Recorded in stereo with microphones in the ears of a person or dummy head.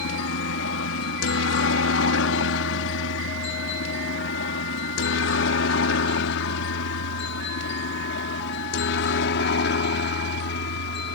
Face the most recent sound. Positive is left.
turn(degrees=65)  # may be behind; listen again after turning